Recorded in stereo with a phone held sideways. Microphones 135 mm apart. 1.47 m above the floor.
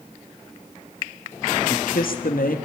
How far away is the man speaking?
About 2.5 m.